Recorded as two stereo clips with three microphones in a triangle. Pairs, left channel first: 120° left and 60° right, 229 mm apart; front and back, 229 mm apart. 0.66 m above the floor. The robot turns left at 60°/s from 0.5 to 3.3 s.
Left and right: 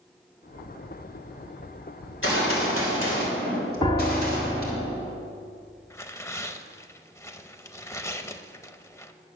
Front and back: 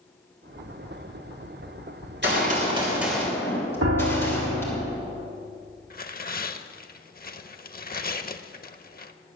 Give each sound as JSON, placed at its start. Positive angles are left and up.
{"t": 2.0, "sound": "a gunshot", "azimuth_deg": 155, "distance_m": 3.0}
{"t": 3.8, "sound": "a piano", "azimuth_deg": -170, "distance_m": 1.1}
{"t": 5.9, "sound": "tearing paper", "azimuth_deg": 45, "distance_m": 0.6}